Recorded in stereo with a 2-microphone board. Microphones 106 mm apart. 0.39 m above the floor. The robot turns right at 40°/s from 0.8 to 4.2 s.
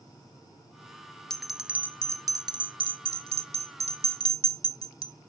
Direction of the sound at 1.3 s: 5° left (ahead or behind).